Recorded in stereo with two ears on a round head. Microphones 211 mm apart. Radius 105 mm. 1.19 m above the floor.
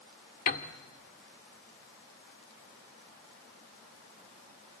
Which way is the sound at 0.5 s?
40° left (ahead or behind).